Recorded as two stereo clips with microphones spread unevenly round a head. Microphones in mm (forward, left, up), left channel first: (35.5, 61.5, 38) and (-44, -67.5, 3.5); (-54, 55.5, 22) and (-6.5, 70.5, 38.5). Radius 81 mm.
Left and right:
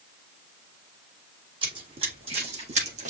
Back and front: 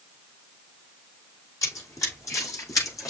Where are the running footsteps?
175° left, 5.5 m; by 3.1 s 170° right, 5 m.